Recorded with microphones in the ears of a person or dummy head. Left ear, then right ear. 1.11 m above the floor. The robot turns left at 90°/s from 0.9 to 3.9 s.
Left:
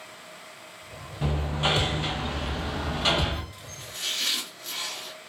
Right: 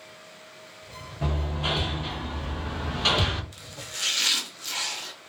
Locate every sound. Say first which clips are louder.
1.2 s hammering: left 3 dB; 15° left (ahead or behind), 0.5 m; by 3.4 s 30° right (ahead or behind), 0.5 m
3.5 s chopping: right 2 dB; 55° right, 0.9 m; by 5.1 s 90° right, 0.9 m